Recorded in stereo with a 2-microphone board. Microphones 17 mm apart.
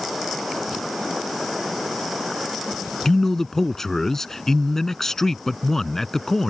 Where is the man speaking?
25° left (ahead or behind).